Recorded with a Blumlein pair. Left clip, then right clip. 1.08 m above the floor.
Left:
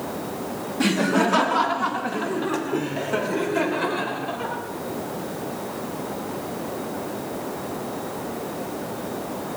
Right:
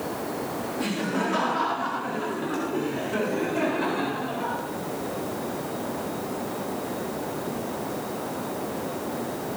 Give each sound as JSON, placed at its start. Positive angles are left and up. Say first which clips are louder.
{"t": 0.8, "sound": "laughter", "louder": "left 9 dB", "azimuth_deg": 25, "distance_m": 1.7}